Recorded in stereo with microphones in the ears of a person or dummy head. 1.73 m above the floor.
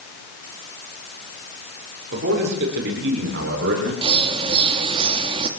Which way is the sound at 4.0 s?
30° right (ahead or behind).